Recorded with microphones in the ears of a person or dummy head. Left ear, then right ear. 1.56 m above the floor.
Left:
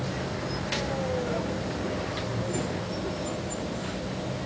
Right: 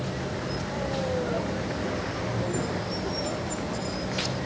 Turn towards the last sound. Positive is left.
turn(degrees=-30)  # may be behind; listen again after turning